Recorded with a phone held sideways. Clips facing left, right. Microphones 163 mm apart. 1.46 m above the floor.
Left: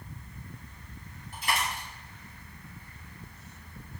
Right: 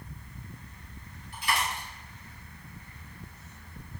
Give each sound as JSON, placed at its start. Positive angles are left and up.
{"t": 1.3, "sound": "a dropped coin", "side_deg": 45, "distance_m": 1.1}